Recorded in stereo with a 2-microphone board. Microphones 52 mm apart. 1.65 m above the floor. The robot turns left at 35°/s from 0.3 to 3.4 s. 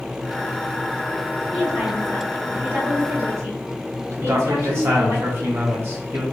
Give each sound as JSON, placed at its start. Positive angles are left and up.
{"t": 1.5, "sound": "a woman speaking", "azimuth_deg": -5, "distance_m": 1.9}
{"t": 4.2, "sound": "a man speaking", "side_deg": -50, "distance_m": 2.0}